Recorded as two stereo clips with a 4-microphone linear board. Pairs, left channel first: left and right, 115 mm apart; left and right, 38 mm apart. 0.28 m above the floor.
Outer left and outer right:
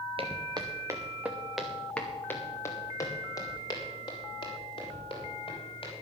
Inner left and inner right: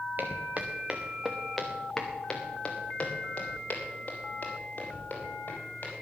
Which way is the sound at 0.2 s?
50° right (ahead or behind).